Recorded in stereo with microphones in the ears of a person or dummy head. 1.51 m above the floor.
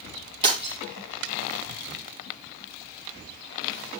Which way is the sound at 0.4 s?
30° right (ahead or behind).